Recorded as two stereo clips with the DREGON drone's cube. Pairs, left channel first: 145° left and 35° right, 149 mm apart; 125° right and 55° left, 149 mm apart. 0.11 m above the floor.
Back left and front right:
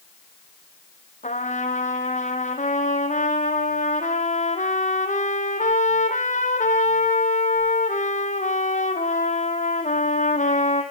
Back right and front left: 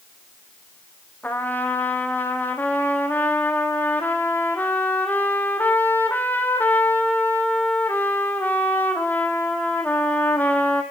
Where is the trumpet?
160° left, 2.5 m.